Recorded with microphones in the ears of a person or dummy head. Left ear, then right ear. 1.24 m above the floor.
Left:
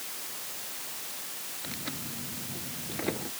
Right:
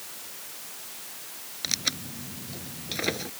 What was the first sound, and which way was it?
Tearing paper, 75° right (ahead or behind).